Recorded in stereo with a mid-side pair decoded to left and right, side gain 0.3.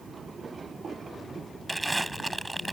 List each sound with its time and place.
1.7 s crumpling: 20° right